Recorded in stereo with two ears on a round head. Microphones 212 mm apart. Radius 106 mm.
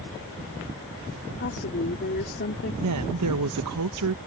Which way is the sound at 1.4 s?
45° left (ahead or behind).